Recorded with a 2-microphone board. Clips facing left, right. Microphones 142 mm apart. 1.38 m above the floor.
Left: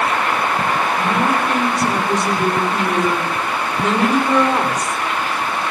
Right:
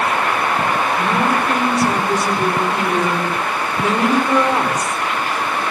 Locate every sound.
1.0 s a woman speaking: 5° right (ahead or behind), 5.5 m